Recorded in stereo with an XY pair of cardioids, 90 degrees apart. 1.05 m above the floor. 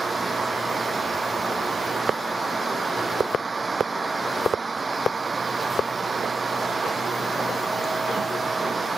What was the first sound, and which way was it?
A fan, 25° right.